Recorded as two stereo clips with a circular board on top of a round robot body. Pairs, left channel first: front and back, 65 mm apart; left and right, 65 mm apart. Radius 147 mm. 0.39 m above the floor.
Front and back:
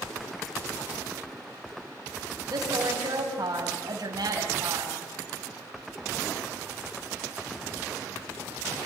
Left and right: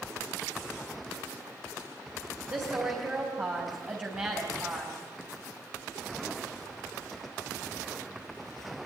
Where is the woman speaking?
155° right, 4 m.